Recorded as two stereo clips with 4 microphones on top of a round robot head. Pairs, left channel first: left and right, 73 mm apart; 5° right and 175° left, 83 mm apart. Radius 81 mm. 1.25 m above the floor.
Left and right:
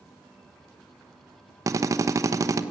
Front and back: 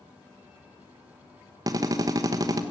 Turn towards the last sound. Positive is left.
turn(degrees=-130)